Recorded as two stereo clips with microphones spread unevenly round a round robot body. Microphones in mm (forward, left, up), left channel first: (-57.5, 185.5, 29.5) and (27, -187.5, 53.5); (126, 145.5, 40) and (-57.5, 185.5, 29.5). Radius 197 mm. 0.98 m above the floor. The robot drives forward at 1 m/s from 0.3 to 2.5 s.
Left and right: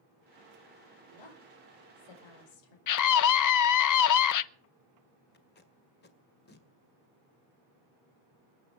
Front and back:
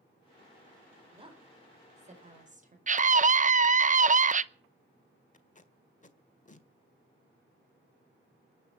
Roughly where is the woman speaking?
Left.